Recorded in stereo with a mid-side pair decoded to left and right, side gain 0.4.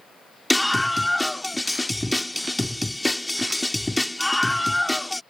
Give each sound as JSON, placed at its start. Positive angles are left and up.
{"t": 0.5, "sound": "a scream", "azimuth_deg": 5}